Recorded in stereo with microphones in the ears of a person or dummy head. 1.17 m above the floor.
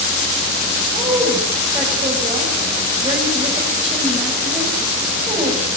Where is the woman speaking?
25° right (ahead or behind), 6.5 m.